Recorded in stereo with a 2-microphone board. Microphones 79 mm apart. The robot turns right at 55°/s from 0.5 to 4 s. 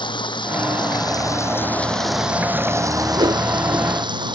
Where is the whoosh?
85° right; by 3.4 s 75° right (ahead or behind).